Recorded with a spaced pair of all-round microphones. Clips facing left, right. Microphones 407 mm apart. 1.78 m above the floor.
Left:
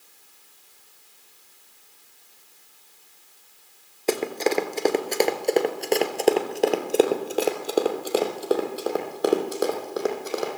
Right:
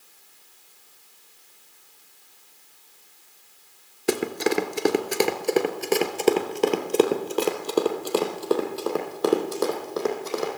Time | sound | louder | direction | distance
4.1 | running footsteps | even | 25° right (ahead or behind) | 1.9 m